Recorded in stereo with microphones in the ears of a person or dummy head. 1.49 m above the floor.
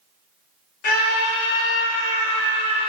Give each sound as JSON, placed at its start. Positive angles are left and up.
{"t": 0.8, "sound": "a scream", "side_deg": 50, "distance_m": 1.3}